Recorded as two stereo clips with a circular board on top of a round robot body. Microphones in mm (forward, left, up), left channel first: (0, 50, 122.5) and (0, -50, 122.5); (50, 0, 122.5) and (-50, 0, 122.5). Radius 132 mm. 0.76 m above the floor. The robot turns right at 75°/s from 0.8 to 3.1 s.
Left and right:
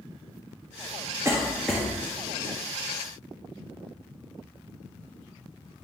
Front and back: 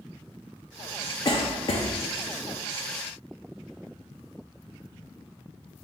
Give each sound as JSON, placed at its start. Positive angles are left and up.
{"t": 1.2, "sound": "a cough", "azimuth_deg": -35, "distance_m": 0.6}